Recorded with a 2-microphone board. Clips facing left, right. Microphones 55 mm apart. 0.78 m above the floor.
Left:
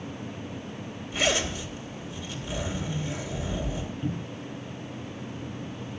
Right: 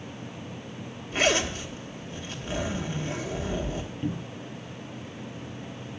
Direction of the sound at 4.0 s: 20° right (ahead or behind).